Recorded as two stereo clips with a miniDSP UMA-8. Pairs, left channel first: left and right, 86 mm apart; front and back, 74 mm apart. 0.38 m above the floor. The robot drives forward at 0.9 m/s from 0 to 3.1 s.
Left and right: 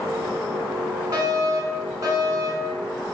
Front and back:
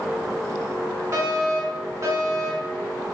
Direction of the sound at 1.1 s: 140° right.